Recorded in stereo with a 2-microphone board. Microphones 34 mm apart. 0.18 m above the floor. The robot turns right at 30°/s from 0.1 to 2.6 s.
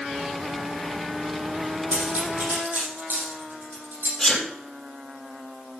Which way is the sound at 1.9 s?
60° right (ahead or behind).